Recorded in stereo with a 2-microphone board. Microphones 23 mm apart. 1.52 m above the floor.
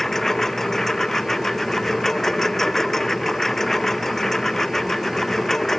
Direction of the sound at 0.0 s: 15° left (ahead or behind).